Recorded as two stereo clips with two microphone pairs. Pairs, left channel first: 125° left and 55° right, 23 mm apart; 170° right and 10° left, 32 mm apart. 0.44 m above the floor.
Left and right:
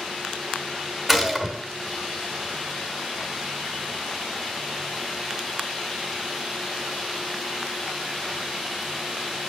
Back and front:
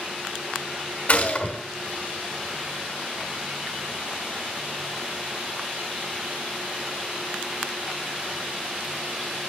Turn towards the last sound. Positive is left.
turn(degrees=-140)